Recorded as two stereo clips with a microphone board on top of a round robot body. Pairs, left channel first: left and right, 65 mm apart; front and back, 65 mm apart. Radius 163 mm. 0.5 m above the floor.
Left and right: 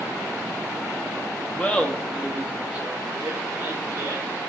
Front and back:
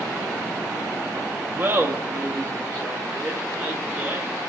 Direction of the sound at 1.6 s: 140° left.